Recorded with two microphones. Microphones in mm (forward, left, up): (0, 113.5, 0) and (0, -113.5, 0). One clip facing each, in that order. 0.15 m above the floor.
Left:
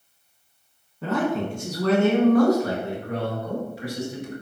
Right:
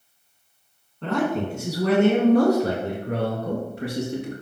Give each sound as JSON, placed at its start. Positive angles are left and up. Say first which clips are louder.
{"t": 1.0, "sound": "a man speaking", "louder": "even", "side_deg": 5, "distance_m": 1.8}